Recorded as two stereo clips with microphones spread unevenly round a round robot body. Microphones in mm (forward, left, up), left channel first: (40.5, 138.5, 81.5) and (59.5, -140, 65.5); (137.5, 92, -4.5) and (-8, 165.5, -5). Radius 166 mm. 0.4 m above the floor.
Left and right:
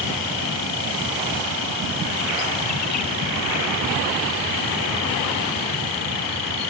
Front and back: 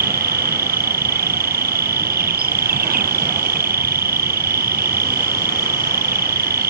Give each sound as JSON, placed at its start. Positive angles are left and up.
{"t": 0.0, "sound": "an insect", "azimuth_deg": 130}